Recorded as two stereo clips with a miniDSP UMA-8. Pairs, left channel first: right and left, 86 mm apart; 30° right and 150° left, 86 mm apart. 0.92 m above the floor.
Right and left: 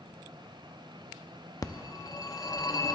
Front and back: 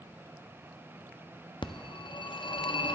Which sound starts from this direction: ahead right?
A phone ringing, at 1.6 s.